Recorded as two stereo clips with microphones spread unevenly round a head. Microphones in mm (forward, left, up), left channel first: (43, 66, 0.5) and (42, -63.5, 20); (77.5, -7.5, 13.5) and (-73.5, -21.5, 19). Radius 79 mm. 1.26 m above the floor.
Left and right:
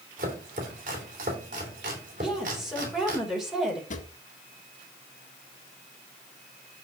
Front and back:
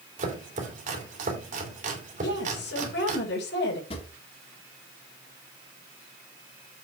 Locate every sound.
0.2 s chopping: 135° right, 2.5 m
2.2 s a woman speaking: 5° right, 4 m
3.9 s a drawer: 60° left, 1.6 m